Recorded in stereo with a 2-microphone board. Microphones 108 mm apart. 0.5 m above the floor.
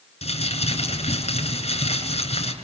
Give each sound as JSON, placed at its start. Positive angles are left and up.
{"t": 0.2, "sound": "crumpling", "side_deg": 80, "distance_m": 8.0}